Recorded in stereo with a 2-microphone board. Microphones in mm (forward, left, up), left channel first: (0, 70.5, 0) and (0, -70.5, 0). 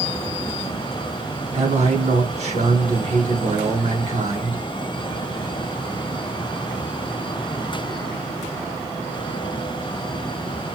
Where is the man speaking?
55° right (ahead or behind), 4 m.